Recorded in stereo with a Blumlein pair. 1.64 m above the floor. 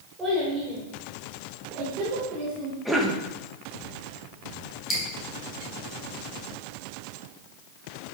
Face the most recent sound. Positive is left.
turn(degrees=5)